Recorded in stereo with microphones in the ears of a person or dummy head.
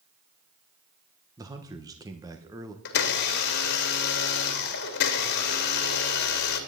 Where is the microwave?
I don't hear a microwave.